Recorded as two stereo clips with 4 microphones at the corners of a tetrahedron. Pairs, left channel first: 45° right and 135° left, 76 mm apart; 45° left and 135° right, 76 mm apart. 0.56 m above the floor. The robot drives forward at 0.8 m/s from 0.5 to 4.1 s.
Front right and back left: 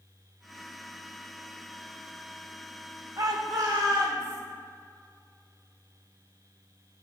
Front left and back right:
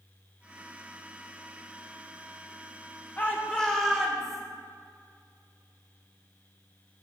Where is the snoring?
I don't hear snoring.